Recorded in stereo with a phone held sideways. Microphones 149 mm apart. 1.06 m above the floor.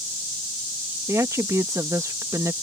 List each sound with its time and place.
1.1 s a woman speaking: 20° right (ahead or behind)